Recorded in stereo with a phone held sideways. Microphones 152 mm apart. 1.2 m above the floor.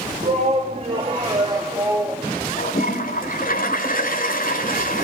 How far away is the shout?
About 2.5 m.